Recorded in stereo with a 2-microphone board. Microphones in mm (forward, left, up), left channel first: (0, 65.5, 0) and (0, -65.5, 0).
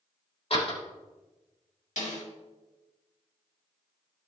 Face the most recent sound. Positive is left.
turn(degrees=80)